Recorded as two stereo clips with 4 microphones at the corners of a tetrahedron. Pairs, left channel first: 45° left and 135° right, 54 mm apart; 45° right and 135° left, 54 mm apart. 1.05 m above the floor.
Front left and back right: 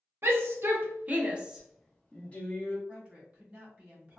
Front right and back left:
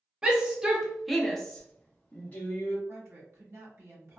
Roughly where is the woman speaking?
Behind.